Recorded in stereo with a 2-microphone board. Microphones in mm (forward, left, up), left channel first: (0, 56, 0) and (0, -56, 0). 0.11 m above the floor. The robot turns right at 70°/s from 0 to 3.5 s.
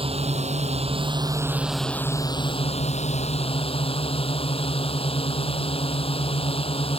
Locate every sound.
0.0 s a drone: 125° right; by 7.0 s 120° left